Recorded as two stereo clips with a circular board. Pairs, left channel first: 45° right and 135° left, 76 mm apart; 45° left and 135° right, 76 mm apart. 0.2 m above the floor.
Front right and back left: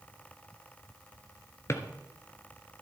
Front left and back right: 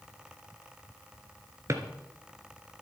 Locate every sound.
1.7 s a drawer: 90° right, 1.6 m